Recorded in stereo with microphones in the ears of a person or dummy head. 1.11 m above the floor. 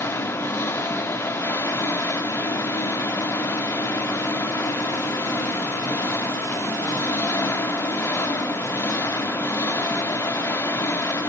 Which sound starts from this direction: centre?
An engine running, at 0.0 s.